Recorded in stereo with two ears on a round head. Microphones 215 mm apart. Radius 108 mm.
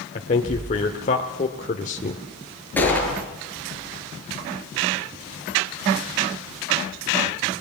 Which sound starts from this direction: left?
A man speaking, at 0.1 s.